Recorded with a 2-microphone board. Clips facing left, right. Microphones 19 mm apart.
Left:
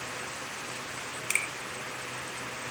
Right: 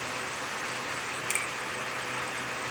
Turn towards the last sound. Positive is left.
turn(degrees=25)  # may be behind; listen again after turning